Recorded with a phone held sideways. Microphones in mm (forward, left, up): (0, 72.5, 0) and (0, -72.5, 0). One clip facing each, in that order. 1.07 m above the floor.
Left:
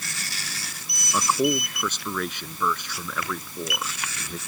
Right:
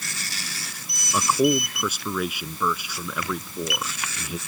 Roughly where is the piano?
No piano in this recording.